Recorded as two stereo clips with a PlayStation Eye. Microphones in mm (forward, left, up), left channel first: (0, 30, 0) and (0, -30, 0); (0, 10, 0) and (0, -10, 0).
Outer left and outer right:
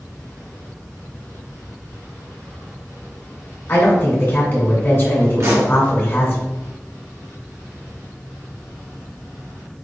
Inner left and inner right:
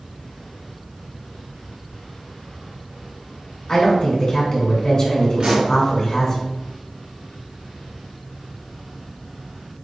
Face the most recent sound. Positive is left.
turn(degrees=-55)  # may be behind; listen again after turning